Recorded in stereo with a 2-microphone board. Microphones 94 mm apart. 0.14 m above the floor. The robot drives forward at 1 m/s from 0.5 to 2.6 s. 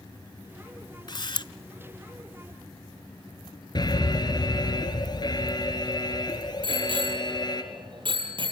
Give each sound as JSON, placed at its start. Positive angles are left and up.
{"t": 1.1, "sound": "a camera shutter", "side_deg": 50, "distance_m": 0.7}
{"t": 3.8, "sound": "an alarm", "side_deg": 45, "distance_m": 2.0}
{"t": 6.6, "sound": "a bicycle bell", "side_deg": -55, "distance_m": 3.0}